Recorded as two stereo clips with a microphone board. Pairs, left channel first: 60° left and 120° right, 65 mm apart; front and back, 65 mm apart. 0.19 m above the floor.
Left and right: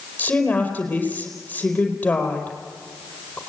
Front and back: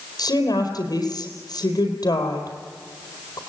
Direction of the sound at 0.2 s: 5° right.